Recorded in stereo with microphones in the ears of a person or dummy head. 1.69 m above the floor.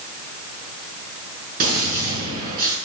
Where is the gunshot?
50° right (ahead or behind), 7 m.